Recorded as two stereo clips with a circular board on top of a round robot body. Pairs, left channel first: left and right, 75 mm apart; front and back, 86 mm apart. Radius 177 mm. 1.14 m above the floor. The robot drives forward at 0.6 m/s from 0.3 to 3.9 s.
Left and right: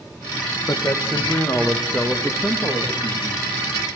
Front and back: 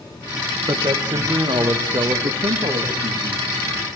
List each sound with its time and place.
0.7 s a man speaking: 140° left, 1.7 m; by 3.5 s 160° left, 3 m